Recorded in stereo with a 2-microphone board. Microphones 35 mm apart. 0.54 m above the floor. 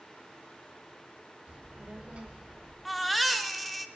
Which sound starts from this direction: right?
A child speaking, at 1.5 s.